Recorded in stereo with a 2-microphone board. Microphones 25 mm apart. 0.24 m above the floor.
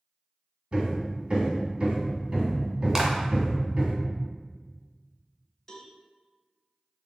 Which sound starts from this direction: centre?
A clap, at 3.0 s.